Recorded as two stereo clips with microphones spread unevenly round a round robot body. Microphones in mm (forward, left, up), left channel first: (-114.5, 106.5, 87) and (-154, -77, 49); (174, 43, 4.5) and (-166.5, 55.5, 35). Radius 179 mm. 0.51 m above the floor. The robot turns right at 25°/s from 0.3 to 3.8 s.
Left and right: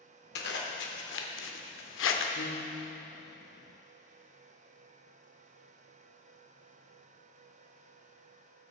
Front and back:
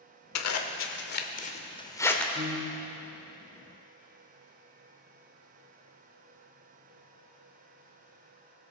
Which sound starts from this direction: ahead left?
A zipper, at 0.3 s.